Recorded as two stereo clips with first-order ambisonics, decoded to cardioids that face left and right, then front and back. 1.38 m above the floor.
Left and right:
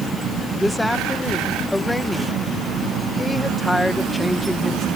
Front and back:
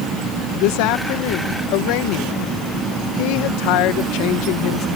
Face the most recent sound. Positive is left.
turn(degrees=10)